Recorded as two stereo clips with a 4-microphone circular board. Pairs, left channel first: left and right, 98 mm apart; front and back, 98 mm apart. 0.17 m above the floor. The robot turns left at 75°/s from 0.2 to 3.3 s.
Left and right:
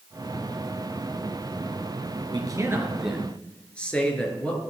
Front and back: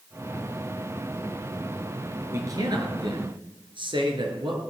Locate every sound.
2.3 s a man speaking: 120° right, 3.5 m; by 4.6 s 165° left, 3.5 m